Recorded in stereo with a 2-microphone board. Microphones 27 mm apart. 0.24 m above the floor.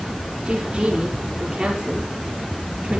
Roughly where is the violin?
I don't hear a violin.